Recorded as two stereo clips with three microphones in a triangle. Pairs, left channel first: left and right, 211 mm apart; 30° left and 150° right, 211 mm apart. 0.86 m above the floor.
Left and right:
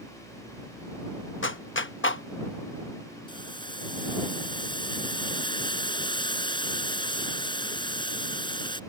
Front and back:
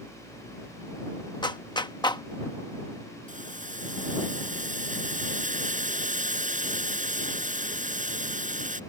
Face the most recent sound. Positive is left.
turn(degrees=160)